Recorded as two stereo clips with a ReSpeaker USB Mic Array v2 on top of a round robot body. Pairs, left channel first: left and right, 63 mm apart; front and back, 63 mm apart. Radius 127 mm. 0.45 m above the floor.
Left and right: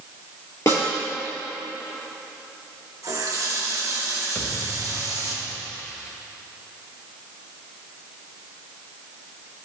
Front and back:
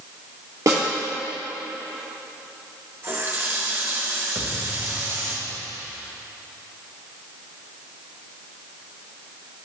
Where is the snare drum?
140° left, 3 m.